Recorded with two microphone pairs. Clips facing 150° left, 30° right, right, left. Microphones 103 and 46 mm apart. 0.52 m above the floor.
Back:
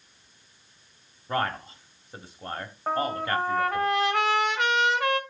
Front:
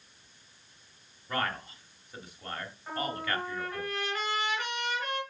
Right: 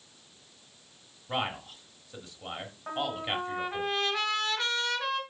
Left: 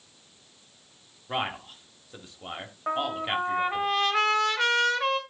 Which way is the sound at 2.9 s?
130° left.